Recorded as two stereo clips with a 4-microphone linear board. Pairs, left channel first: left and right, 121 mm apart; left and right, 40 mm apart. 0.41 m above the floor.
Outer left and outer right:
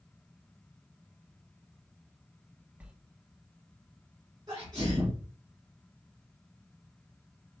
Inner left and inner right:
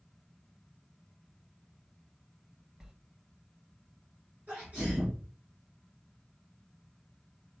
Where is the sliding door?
10° right (ahead or behind), 0.6 m.